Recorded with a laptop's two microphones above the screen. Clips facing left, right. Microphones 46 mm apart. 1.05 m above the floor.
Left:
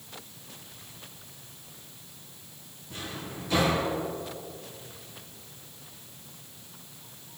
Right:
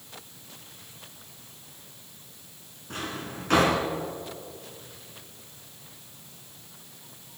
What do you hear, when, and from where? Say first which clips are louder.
2.9 s a drawer: right 4 dB; 60° right (ahead or behind), 3 m